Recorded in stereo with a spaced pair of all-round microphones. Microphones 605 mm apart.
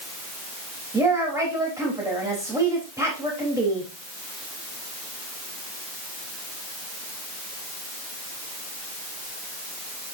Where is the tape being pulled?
No tape being pulled in this recording.